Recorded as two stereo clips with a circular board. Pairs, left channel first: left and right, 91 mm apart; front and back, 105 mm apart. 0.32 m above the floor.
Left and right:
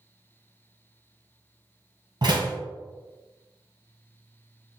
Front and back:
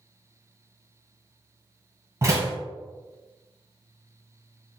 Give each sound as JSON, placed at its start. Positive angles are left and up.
{"t": 2.2, "sound": "a door slam", "azimuth_deg": -120, "distance_m": 1.3}